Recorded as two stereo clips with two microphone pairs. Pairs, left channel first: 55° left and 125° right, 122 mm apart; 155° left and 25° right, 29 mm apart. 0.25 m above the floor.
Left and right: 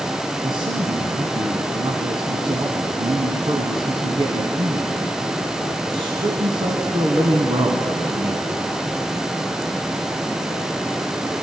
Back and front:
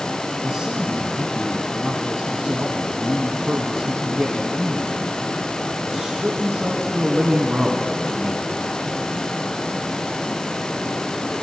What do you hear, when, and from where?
0.4 s a man speaking: 85° right, 1.9 m